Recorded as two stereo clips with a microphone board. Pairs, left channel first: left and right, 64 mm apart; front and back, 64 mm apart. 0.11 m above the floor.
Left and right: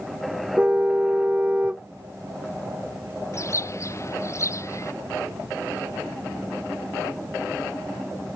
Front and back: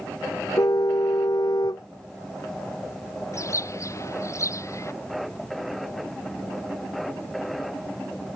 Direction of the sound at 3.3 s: 45° left.